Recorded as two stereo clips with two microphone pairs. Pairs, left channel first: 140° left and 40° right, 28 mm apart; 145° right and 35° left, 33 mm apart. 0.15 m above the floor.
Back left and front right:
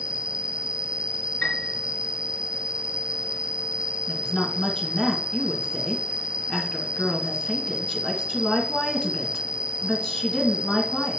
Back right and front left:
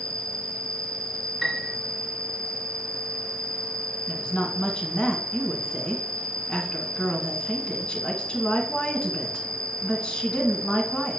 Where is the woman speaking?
Straight behind, 1.8 m.